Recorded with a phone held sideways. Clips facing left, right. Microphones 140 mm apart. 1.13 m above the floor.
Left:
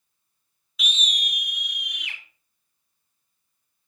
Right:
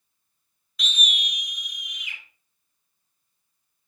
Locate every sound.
0.8 s a scream: 5° left (ahead or behind), 0.7 m; by 2.2 s 70° left (ahead or behind), 2 m